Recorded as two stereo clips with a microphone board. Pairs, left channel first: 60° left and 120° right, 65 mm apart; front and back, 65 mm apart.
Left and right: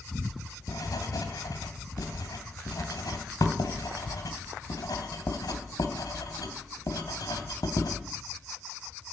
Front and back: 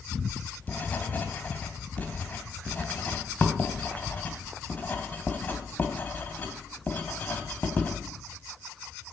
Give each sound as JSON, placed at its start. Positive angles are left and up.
{"t": 0.2, "sound": "writing", "azimuth_deg": 60, "distance_m": 2.5}